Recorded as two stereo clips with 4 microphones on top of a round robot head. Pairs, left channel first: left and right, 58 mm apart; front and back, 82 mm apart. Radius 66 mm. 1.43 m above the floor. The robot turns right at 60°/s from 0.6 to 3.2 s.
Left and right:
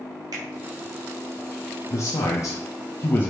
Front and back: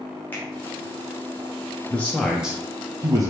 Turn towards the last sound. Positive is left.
turn(degrees=145)